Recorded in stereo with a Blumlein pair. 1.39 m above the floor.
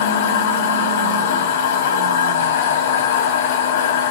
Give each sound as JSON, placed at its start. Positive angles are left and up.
{"t": 0.0, "sound": "a machine running", "azimuth_deg": 55, "distance_m": 1.0}